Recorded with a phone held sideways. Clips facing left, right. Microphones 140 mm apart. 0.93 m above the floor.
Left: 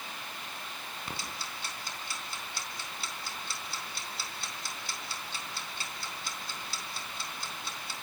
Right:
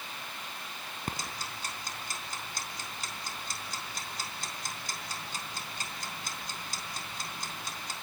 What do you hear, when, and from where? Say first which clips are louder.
1.1 s ticking: right 4 dB; 45° right (ahead or behind), 3.5 m